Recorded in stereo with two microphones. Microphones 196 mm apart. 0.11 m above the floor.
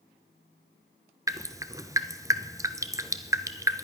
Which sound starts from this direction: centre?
Dripping, at 1.3 s.